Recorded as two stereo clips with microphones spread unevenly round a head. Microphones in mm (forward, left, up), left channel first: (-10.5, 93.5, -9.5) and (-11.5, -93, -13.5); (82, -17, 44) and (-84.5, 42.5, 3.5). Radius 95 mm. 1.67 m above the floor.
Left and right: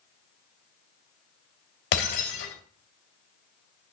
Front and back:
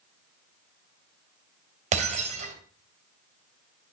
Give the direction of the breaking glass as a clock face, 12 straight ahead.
9 o'clock.